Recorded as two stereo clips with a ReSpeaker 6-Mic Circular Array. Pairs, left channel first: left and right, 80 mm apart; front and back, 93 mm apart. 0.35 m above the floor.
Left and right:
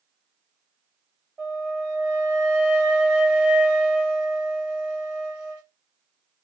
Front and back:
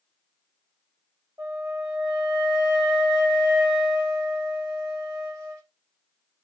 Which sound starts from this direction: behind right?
A flute, at 1.4 s.